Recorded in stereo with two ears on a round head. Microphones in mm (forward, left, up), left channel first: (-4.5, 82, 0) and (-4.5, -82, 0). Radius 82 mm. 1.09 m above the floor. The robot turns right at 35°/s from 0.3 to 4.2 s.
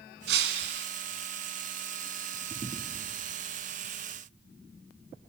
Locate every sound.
0.3 s breaking glass: 70° right (ahead or behind), 3 m; by 0.9 s 75° right (ahead or behind), 3 m